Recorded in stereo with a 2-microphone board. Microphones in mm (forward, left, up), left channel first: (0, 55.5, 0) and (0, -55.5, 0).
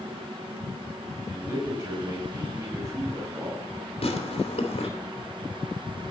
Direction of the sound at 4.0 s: 70° left (ahead or behind).